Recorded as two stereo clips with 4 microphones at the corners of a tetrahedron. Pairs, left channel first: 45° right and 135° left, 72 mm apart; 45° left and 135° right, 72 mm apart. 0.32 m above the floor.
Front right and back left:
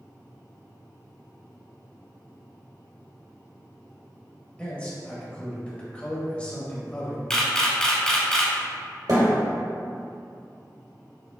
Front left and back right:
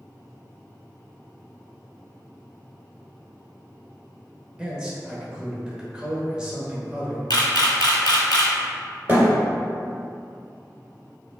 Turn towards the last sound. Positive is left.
turn(degrees=165)